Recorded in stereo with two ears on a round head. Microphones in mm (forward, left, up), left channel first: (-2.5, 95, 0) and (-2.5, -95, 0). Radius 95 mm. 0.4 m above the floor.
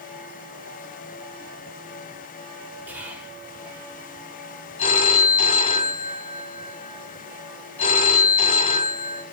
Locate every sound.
2.9 s whispering: 10° right (ahead or behind), 1.7 m
4.8 s a phone ringing: 30° left (ahead or behind), 1.9 m